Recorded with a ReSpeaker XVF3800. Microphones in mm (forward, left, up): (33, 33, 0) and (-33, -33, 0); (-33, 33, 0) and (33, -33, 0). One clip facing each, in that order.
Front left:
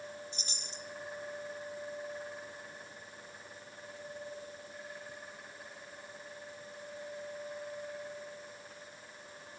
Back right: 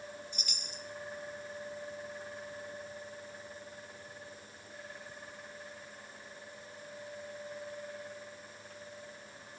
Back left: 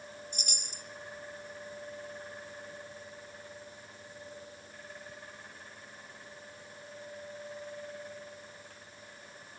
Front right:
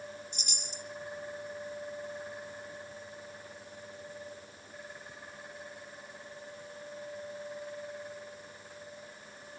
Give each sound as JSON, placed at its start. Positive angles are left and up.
{"t": 0.3, "sound": "a chime", "azimuth_deg": 105, "distance_m": 1.3}